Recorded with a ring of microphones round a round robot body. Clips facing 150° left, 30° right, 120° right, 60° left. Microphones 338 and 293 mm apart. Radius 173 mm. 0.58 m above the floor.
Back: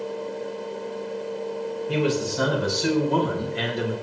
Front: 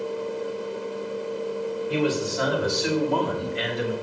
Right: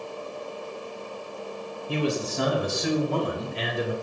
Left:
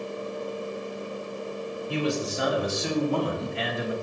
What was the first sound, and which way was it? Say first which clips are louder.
A man speaking: back 1 dB, right 1 dB; 160° right.